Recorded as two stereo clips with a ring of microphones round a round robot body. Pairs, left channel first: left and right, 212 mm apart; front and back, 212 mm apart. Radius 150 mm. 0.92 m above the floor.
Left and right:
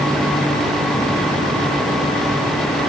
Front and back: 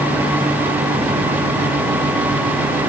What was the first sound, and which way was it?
Only background noise.